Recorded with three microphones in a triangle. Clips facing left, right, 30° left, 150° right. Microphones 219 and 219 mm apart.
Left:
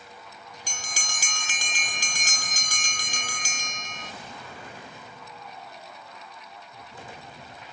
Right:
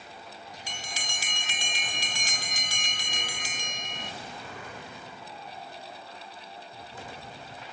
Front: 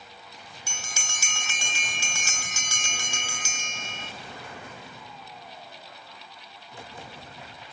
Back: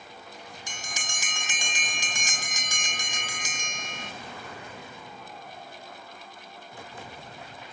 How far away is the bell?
About 0.9 m.